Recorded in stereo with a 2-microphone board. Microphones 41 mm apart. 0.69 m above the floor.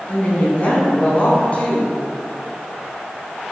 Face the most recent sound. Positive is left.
turn(degrees=35)  # may be behind; listen again after turning